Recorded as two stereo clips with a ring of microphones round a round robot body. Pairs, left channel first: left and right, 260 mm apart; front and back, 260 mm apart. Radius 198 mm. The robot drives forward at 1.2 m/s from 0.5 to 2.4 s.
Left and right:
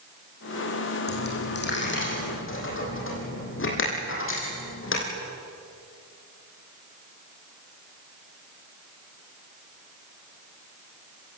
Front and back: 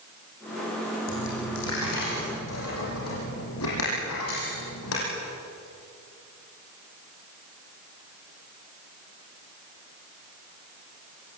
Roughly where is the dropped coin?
Ahead left.